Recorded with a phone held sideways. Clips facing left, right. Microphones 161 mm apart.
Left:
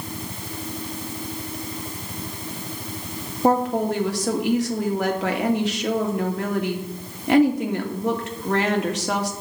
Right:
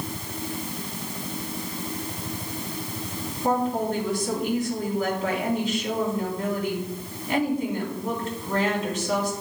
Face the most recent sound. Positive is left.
turn(degrees=75)  # may be behind; listen again after turning